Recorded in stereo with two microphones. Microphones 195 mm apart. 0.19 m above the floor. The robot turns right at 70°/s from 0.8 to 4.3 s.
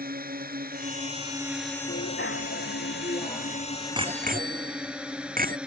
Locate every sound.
0.0 s a drone: 60° right; by 5.7 s 175° right
1.9 s a bicycle bell: 60° left; by 5.6 s 130° right